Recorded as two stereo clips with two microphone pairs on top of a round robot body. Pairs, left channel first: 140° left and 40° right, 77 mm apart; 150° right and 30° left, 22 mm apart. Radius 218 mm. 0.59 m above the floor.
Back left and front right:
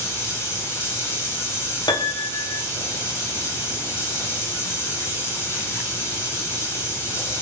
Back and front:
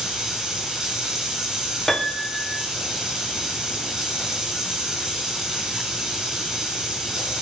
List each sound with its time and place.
0.0 s running water: 90° left, 7.5 m
1.9 s a piano: 145° left, 2.5 m